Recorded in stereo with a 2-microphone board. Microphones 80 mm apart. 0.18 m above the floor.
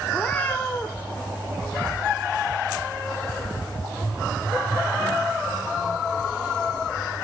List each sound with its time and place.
0.1 s a cat meowing: 20° left (ahead or behind), 2 m